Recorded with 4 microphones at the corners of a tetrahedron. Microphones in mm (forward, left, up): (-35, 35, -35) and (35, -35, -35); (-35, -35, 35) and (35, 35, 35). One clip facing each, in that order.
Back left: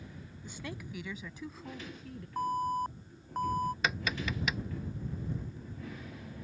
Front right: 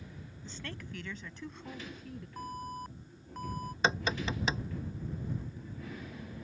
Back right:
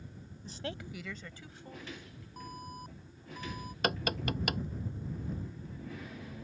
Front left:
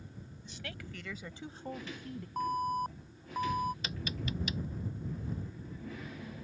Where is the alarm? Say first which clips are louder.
Back left 10 dB, front left 13 dB; 85° left.